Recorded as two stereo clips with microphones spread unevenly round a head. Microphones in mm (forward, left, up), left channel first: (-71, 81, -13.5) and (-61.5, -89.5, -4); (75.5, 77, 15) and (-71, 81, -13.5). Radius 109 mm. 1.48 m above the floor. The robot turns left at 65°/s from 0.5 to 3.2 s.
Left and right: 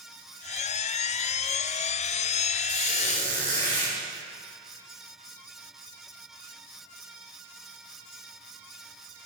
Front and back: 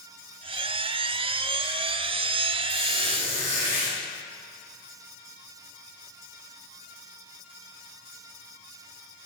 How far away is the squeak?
About 7 m.